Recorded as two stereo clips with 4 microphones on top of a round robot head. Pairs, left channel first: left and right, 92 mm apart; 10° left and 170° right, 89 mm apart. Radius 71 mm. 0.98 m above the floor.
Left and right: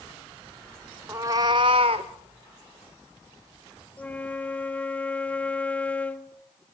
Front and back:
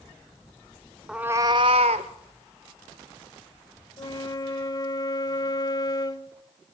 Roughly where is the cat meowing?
Right.